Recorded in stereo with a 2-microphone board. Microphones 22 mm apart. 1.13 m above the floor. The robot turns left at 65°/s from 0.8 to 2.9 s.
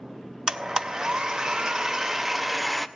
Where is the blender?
55° right, 0.5 m; by 2.9 s 170° left, 0.5 m.